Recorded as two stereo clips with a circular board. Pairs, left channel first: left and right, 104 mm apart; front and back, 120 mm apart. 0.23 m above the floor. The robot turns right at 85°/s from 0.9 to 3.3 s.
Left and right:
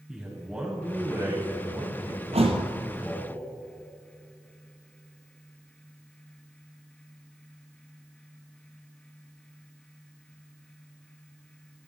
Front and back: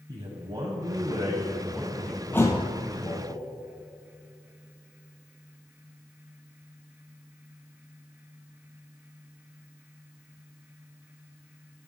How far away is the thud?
About 1.1 m.